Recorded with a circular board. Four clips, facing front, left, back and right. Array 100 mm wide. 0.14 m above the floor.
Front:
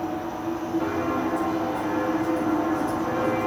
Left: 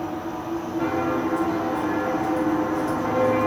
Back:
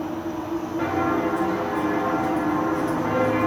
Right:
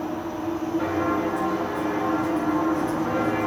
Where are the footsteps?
Straight behind, 6 m; by 3.5 s 165° left, 5.5 m.